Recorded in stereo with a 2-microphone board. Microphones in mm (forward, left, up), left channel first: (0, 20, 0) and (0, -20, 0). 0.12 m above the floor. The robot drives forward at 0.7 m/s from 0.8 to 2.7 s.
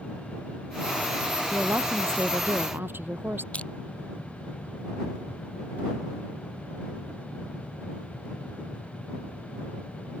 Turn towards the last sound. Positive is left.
turn(degrees=40)  # may be behind; listen again after turning